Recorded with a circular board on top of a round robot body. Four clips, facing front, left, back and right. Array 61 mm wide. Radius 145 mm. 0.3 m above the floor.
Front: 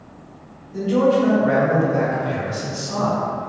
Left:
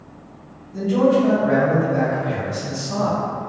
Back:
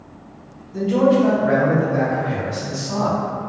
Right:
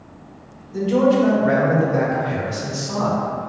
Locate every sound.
0.7 s a man speaking: 95° right, 1.7 m